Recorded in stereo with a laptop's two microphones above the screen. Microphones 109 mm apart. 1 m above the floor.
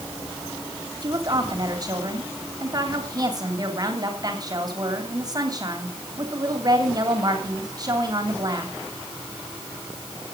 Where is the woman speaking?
35° right (ahead or behind), 2.5 m.